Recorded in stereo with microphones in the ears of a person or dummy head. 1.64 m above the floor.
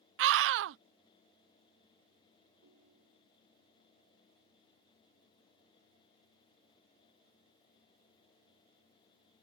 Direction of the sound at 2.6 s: 70° right (ahead or behind).